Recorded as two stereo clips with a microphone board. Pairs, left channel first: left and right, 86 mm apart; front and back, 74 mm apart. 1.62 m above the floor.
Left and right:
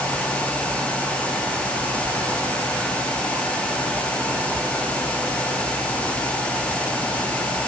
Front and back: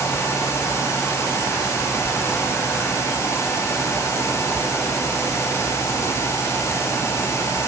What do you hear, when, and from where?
Only background noise.